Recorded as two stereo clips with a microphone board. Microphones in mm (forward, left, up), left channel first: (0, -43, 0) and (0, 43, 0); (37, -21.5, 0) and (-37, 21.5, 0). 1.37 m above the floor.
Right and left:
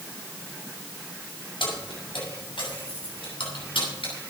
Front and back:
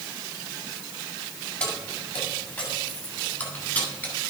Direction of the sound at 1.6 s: 105° right.